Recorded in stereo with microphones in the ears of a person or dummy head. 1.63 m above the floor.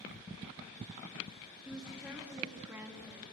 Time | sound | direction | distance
1.6 | a woman speaking | centre (ahead or behind) | 2.5 m